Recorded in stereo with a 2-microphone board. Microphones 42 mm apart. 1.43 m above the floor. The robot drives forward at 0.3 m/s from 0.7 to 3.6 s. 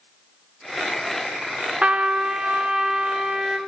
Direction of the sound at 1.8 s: 30° right (ahead or behind).